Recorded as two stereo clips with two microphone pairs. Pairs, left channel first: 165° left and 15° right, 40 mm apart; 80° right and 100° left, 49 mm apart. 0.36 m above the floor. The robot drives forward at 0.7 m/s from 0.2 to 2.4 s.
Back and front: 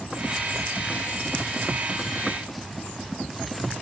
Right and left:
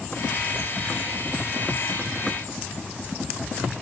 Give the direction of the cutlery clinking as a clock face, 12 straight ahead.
I don't hear cutlery clinking.